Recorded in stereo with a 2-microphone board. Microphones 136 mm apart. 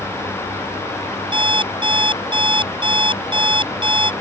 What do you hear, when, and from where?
1.3 s an alarm clock: 40° right (ahead or behind)